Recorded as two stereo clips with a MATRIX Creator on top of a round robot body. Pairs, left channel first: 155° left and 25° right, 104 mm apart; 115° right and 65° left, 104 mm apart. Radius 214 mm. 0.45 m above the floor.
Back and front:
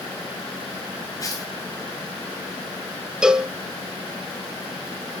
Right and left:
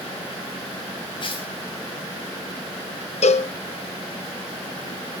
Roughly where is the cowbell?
Right.